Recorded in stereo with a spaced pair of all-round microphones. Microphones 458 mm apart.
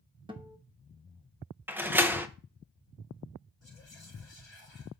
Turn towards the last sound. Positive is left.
turn(degrees=70)  # may be behind; listen again after turning